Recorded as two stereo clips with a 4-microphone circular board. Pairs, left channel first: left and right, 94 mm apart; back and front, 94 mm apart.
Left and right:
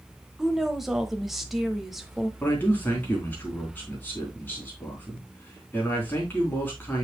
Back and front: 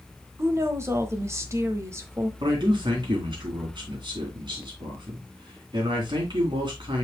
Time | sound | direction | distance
0.4 | a woman speaking | 5° right | 1.1 m
2.4 | a man speaking | 20° left | 3.5 m